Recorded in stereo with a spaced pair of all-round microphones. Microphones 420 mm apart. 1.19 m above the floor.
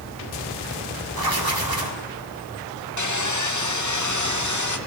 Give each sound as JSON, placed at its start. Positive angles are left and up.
{"t": 1.1, "sound": "writing", "side_deg": -55, "distance_m": 1.8}
{"t": 3.0, "sound": "sawing", "side_deg": 45, "distance_m": 0.8}